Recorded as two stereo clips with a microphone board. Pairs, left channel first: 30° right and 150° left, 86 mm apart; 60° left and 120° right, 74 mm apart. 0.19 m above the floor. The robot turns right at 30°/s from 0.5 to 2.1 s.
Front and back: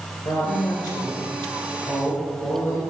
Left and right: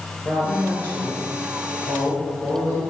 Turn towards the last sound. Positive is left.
turn(degrees=30)